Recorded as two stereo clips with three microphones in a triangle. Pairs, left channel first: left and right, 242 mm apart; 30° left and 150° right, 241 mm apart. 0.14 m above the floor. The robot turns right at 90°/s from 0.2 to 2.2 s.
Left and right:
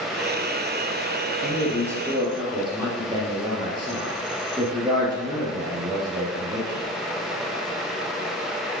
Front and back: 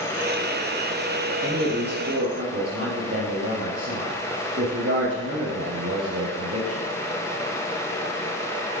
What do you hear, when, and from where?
1.4 s a man speaking: 130° left, 3.5 m; by 6.9 s 160° right, 3.5 m